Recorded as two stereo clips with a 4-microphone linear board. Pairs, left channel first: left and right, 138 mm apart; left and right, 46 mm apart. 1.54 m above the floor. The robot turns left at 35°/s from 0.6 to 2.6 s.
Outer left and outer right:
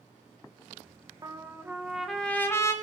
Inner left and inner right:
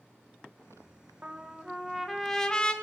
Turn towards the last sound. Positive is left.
turn(degrees=160)